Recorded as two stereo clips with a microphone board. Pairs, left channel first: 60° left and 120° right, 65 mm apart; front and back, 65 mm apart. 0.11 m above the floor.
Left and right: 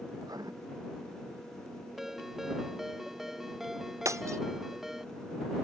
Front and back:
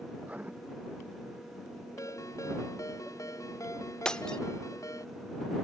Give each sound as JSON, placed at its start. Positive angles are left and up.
{"t": 0.2, "sound": "writing", "azimuth_deg": -115}
{"t": 2.0, "sound": "a ringtone", "azimuth_deg": -35}
{"t": 4.0, "sound": "breaking glass", "azimuth_deg": -80}